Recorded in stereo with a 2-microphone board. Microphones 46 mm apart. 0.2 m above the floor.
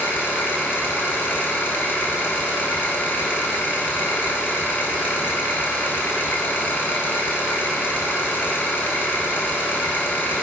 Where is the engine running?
55° left (ahead or behind), 1.0 m.